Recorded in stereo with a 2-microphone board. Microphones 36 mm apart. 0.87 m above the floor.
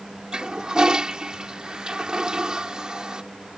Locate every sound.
0.3 s a toilet flushing: 20° right (ahead or behind)